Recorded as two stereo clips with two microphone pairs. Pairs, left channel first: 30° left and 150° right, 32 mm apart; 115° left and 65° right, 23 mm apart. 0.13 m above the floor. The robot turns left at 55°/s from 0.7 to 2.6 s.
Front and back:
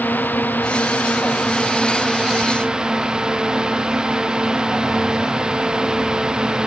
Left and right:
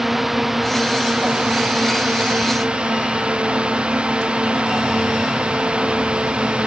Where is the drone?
15° left; by 6.7 s 90° right.